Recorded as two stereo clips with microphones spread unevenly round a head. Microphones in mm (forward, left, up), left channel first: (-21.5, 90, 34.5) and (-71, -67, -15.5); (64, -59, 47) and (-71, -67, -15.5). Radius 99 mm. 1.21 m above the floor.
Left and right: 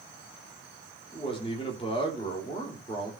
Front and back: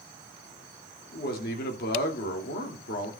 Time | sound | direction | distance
1.1 | a man speaking | 5° left | 3 m